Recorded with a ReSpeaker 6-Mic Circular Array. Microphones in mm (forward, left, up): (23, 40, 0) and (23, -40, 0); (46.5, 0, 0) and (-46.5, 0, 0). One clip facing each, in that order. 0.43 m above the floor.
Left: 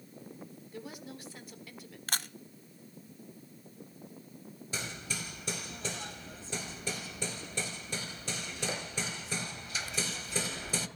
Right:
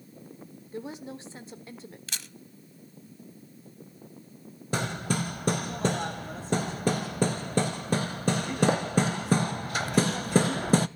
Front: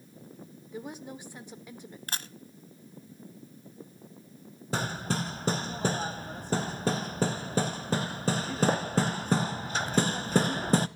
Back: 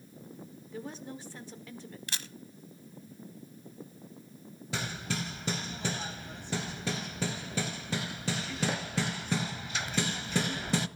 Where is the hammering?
50° right, 0.5 m.